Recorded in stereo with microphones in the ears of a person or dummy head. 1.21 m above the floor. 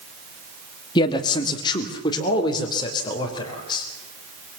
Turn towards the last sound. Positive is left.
turn(degrees=25)  # may be behind; listen again after turning